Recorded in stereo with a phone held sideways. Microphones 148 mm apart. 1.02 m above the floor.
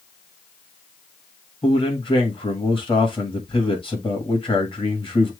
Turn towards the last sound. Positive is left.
turn(degrees=35)  # may be behind; listen again after turning